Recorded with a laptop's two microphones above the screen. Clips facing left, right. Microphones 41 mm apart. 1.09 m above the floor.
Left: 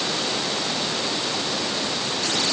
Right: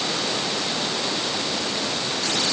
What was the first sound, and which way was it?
Only background noise.